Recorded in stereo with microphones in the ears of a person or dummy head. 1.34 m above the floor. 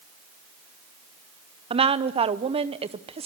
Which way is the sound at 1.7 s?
25° right (ahead or behind).